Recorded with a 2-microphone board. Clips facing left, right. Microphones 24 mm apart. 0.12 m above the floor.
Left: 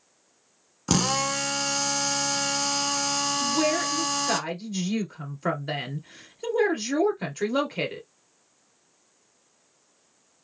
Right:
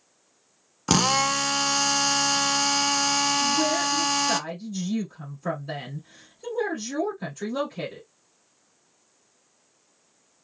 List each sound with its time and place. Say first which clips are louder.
0.9 s a drill: right 3 dB; 20° right (ahead or behind), 0.5 m
3.4 s a woman speaking: right 1 dB; 55° left (ahead or behind), 2.0 m